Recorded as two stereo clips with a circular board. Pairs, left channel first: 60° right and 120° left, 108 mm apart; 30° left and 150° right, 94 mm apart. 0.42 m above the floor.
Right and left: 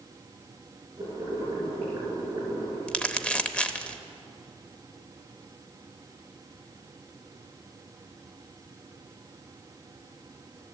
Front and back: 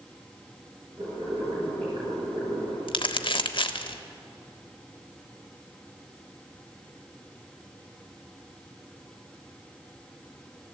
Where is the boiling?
Straight behind, 6 m.